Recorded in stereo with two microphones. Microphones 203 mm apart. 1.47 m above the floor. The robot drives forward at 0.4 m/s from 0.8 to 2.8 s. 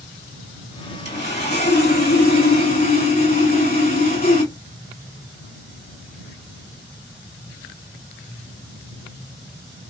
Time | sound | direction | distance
1.1 | sawing | 55° left (ahead or behind) | 2.5 m